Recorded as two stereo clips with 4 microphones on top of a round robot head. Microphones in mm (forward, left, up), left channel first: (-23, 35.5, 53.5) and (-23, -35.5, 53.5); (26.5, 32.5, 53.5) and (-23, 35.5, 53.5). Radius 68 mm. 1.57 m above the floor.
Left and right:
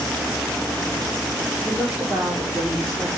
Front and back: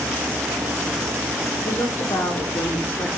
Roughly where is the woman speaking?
Ahead.